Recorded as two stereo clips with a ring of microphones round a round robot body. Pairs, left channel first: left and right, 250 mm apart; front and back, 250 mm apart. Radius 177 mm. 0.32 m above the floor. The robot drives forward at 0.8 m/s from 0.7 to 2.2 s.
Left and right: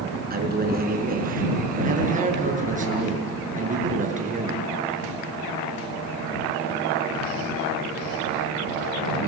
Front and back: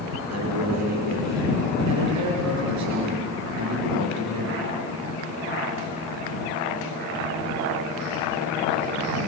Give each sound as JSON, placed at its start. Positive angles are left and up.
{"t": 0.3, "sound": "a man speaking", "azimuth_deg": -140, "distance_m": 5.5}